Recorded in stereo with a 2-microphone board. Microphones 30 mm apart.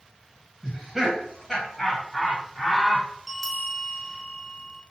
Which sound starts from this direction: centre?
A bell, at 3.3 s.